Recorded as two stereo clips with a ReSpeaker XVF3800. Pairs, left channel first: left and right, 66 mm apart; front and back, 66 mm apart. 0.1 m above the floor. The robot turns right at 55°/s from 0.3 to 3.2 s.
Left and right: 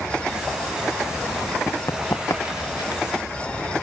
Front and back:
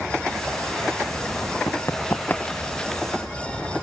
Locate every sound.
1.7 s running footsteps: 35° left; by 3.0 s 85° left